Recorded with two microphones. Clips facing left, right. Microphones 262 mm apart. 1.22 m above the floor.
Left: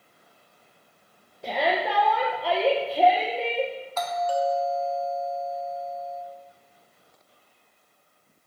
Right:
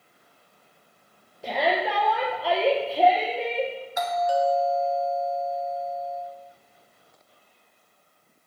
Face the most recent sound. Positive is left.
turn(degrees=-15)  # may be behind; listen again after turning